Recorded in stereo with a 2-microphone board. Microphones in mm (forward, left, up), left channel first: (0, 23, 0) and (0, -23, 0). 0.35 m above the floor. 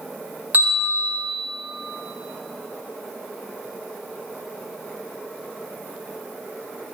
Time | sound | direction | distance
0.5 | a bell | 40° right (ahead or behind) | 2.5 m